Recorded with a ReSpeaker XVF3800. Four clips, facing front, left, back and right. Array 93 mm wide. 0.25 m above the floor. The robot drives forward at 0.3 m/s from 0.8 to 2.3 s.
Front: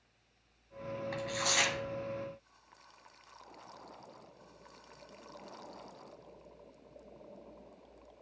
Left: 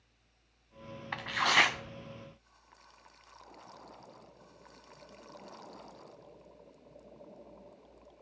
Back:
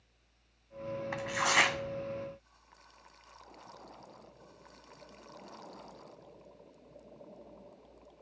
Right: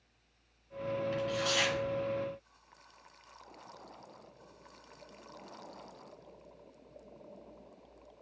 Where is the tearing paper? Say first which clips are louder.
Left 9 dB, back 6 dB; 110° left, 0.6 m; by 1.8 s 130° left, 0.6 m.